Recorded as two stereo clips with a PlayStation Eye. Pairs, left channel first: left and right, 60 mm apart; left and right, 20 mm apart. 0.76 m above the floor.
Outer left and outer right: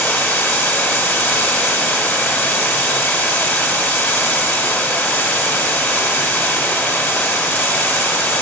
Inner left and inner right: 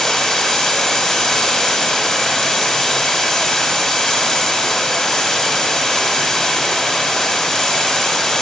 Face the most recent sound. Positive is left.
turn(degrees=35)  # may be behind; listen again after turning